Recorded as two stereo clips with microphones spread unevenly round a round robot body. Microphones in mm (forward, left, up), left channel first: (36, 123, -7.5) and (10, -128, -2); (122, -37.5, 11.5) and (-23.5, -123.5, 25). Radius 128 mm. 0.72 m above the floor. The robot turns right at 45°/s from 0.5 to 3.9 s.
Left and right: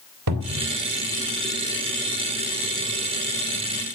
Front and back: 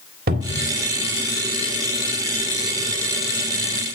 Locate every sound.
0.3 s a cupboard door: 125° right, 2 m; by 0.7 s 110° right, 2 m